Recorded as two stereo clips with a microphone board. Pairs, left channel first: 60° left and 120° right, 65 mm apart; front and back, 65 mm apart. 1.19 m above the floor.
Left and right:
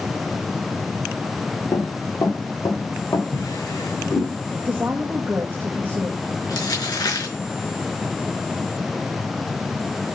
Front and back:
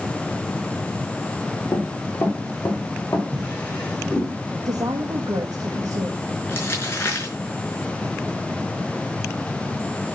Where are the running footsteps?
40° left, 5.5 m.